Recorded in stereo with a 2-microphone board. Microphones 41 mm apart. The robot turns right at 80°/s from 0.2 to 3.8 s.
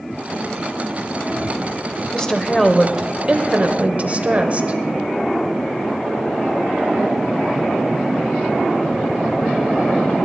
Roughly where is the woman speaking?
Behind left.